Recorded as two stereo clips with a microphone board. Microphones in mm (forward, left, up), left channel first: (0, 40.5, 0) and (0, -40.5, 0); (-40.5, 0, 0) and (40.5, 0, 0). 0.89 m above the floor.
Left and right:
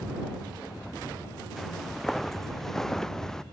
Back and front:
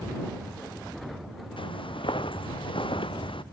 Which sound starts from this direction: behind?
Footsteps, at 1.6 s.